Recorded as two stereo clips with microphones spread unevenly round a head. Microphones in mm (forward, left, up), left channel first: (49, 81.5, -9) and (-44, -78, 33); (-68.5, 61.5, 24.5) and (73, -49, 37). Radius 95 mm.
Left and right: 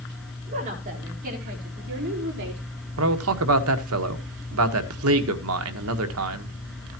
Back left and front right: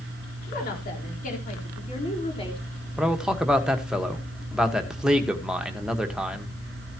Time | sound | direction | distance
0.5 | a woman speaking | 175° right | 4.5 m
3.0 | a man speaking | 125° right | 1.4 m